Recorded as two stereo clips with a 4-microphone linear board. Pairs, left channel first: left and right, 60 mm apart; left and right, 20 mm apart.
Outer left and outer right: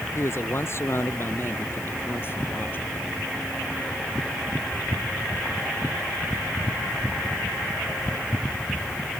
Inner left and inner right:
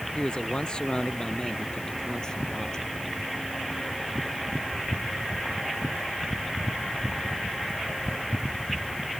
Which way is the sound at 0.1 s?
45° left (ahead or behind).